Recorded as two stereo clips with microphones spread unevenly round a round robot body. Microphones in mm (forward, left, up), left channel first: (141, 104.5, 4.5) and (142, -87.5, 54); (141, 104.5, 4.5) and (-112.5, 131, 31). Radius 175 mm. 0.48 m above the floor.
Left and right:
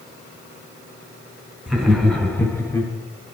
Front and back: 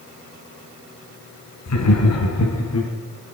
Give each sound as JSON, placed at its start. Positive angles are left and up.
{"t": 1.7, "sound": "laughter", "azimuth_deg": 0, "distance_m": 4.0}